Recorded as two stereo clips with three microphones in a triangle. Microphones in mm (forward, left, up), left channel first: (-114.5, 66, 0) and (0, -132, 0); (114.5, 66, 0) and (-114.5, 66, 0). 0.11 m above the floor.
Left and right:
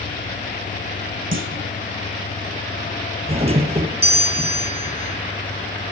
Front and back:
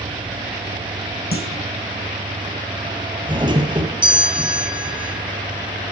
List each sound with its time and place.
1.3 s a clunk: 40° right, 5 m
3.3 s a doorbell: 115° right, 3 m